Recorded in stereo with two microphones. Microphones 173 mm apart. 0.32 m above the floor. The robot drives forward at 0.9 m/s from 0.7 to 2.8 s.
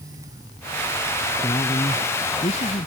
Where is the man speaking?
35° left (ahead or behind); by 2.9 s 50° left (ahead or behind).